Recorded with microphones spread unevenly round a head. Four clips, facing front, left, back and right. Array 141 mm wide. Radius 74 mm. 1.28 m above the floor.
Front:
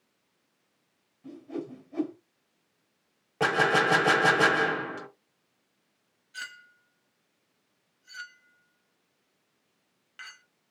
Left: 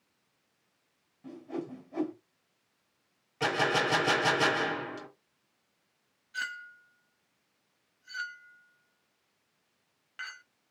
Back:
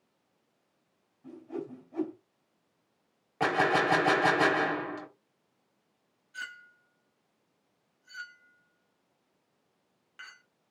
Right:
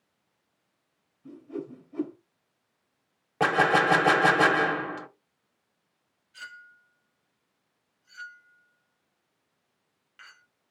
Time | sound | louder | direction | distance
1.2 | a whoosh | right 1 dB, front 2 dB | 70° left | 2.5 m
3.4 | a gunshot | right 6 dB, front 2 dB | 70° right | 1.2 m
6.3 | a clink | left 7 dB, even | 65° left | 1.3 m